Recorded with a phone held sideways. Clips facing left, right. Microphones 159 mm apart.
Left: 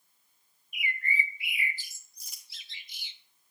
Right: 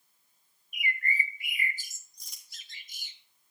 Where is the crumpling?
5° left (ahead or behind), 1.8 m.